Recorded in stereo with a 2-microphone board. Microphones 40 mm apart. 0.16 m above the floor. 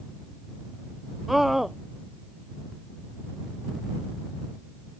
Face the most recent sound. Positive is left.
turn(degrees=-10)  # may be behind; listen again after turning